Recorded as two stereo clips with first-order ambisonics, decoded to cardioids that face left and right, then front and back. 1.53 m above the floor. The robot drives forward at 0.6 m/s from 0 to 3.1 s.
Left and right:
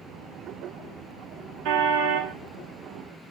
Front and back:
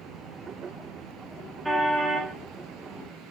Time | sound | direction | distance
1.6 | a car horn | 95° right | 2.5 m